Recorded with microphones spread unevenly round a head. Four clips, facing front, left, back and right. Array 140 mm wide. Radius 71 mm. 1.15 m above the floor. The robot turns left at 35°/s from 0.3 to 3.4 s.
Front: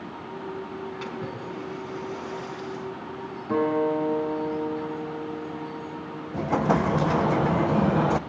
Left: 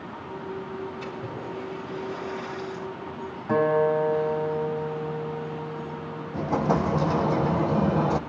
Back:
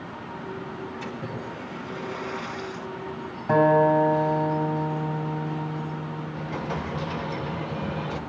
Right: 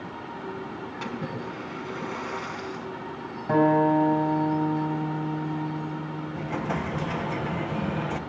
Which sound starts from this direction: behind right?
A guitar, at 3.5 s.